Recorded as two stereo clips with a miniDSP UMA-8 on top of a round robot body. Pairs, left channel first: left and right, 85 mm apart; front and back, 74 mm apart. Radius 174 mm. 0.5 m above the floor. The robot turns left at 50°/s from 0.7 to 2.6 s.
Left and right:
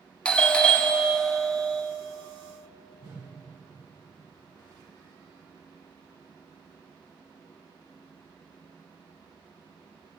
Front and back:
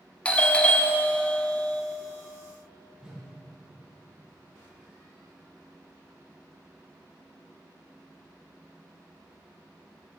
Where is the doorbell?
35° left, 1.2 m; by 1.8 s 20° right, 1.2 m.